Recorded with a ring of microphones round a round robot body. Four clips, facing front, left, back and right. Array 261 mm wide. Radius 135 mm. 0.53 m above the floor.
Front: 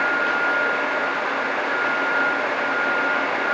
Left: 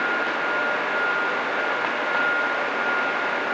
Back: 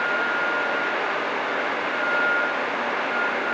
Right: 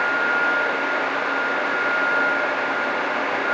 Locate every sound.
Only background noise.